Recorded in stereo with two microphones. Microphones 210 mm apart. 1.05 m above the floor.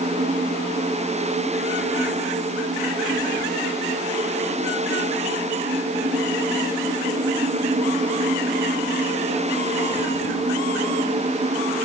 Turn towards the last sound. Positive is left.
No sound to turn to.